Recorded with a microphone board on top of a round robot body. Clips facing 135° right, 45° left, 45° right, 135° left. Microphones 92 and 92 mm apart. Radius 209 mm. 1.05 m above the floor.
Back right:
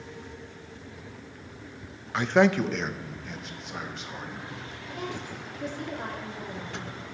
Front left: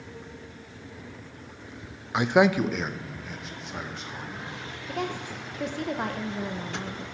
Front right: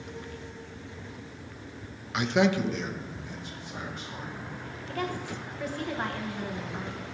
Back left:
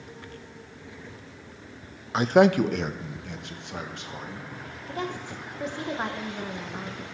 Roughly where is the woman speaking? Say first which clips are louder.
Front left 4 dB, even; ahead left.